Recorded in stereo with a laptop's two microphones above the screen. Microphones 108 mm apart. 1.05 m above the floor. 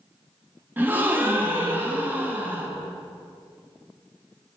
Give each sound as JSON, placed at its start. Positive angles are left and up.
{"t": 0.8, "sound": "a gasp", "side_deg": -15, "distance_m": 0.9}